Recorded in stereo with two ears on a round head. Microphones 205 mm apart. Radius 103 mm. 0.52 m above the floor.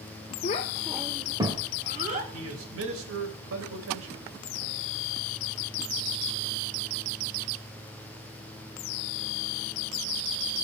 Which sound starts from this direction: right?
A man speaking, at 2.3 s.